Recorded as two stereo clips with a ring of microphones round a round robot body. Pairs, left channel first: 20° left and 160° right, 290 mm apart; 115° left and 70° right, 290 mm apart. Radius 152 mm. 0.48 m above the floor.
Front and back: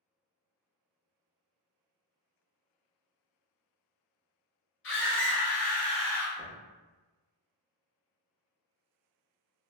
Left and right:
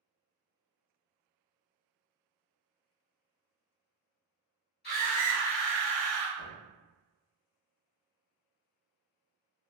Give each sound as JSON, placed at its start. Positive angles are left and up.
{"t": 4.8, "sound": "a scream", "azimuth_deg": 60, "distance_m": 1.7}
{"t": 6.4, "sound": "knocking", "azimuth_deg": 100, "distance_m": 1.0}